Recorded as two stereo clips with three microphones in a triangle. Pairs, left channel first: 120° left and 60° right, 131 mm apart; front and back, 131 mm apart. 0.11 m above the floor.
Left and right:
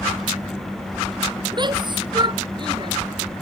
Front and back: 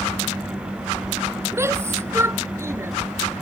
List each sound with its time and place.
1.5 s a shout: 110° right